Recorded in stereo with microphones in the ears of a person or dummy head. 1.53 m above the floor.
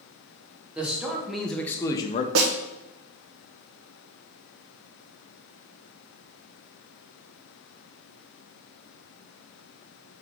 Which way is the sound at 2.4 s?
85° right.